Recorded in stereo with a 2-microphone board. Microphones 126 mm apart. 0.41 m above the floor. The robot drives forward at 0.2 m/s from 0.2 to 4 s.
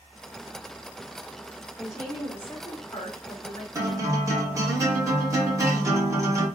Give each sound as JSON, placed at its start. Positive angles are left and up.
{"t": 1.8, "sound": "a woman speaking", "side_deg": 20, "distance_m": 0.8}
{"t": 3.8, "sound": "a guitar", "side_deg": -25, "distance_m": 0.9}